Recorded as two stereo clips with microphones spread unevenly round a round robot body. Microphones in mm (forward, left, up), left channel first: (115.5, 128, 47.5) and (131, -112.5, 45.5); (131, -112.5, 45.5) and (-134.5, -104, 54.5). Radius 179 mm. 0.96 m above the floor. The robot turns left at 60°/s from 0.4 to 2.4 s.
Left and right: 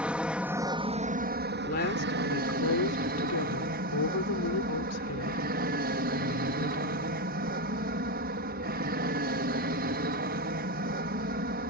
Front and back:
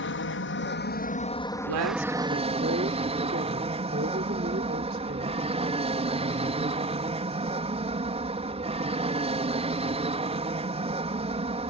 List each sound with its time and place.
0.0 s an aircraft: 5° right; by 11.7 s 125° right
1.5 s a woman speaking: 170° left; by 7.2 s 115° left